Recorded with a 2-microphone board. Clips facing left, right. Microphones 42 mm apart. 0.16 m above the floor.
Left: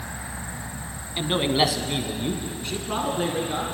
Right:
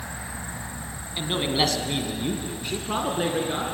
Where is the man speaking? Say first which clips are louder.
Left 3 dB; 15° left (ahead or behind), 1.4 m; by 3.6 s 15° right (ahead or behind), 2.5 m.